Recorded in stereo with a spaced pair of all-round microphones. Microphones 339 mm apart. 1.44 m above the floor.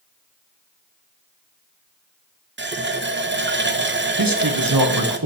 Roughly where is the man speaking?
Right.